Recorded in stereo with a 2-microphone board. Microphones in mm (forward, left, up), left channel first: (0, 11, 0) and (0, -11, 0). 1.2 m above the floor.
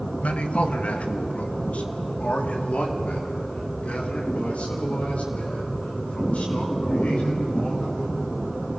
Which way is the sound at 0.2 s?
75° left (ahead or behind).